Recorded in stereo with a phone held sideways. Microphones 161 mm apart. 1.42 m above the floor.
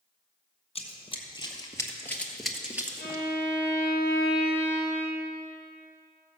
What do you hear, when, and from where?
0.8 s running footsteps: 40° left (ahead or behind), 2 m; by 3.2 s 20° right (ahead or behind), 1.5 m
3.0 s a violin: 70° left (ahead or behind), 3 m